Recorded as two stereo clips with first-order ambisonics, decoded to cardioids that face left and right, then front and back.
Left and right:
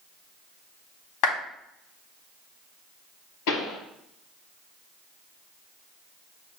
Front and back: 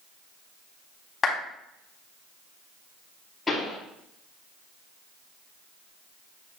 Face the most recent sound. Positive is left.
turn(degrees=80)